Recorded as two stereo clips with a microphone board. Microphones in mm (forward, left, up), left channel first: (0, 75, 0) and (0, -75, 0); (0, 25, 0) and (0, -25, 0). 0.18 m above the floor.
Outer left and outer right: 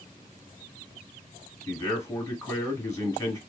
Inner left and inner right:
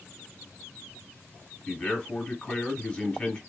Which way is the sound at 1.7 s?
20° left (ahead or behind).